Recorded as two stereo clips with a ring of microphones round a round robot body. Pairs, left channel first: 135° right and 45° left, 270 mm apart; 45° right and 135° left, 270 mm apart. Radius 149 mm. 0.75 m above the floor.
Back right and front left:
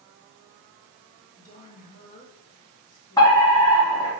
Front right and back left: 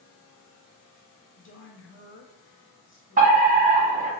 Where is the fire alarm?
160° left, 2.0 m.